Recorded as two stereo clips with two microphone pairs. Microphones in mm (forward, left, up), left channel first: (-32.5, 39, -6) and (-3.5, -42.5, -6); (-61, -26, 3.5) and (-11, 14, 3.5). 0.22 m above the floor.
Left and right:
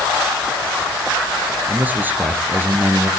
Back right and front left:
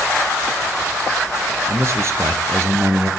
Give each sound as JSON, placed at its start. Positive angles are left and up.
{"t": 1.7, "sound": "a man speaking", "azimuth_deg": 0, "distance_m": 3.5}